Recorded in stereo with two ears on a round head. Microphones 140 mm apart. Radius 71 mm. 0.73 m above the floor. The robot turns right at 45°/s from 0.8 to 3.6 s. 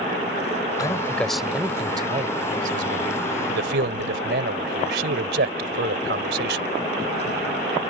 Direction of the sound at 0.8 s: 25° left (ahead or behind).